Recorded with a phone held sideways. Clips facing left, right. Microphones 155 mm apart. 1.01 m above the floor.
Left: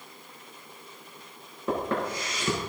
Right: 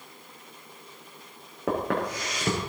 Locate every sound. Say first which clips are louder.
1.7 s footsteps: right 1 dB; 80° right, 6 m